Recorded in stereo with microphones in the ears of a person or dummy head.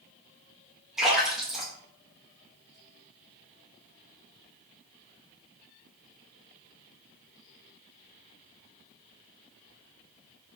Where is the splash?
Centre (ahead or behind), 0.7 m.